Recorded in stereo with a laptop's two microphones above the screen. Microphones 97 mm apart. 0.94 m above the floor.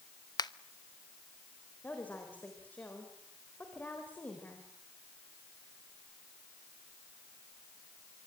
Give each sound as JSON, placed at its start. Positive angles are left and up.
{"t": 0.4, "sound": "a finger snap", "side_deg": 45, "distance_m": 1.0}
{"t": 1.8, "sound": "a woman speaking", "side_deg": 15, "distance_m": 4.0}